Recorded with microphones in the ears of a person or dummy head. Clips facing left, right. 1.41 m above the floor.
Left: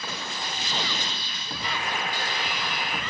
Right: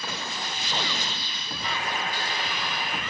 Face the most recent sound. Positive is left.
turn(degrees=-20)  # may be behind; listen again after turning